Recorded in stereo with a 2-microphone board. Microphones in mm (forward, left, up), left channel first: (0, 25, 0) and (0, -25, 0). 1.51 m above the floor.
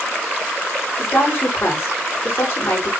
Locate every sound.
1.0 s a woman speaking: 45° left (ahead or behind), 4.5 m